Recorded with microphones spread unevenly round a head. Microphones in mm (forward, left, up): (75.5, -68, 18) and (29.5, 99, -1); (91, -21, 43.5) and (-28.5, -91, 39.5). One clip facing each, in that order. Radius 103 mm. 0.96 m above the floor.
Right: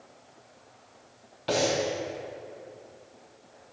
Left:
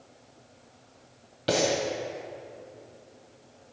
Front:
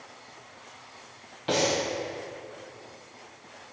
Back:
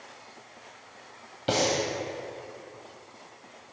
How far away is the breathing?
About 1.0 m.